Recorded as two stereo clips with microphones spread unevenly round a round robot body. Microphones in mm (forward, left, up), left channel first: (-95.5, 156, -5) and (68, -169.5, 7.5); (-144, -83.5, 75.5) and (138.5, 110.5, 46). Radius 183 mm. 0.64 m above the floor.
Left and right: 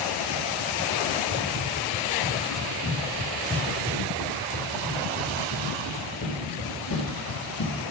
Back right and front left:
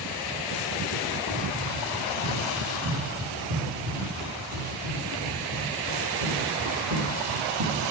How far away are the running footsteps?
About 6 m.